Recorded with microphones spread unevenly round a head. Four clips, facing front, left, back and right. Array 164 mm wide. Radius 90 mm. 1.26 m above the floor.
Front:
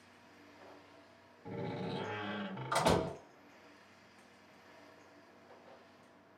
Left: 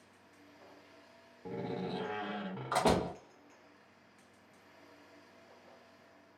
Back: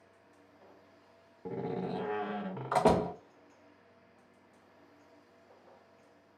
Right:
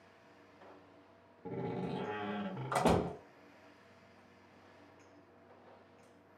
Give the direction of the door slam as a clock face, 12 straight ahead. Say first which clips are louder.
Left 1 dB, back 5 dB; 6 o'clock.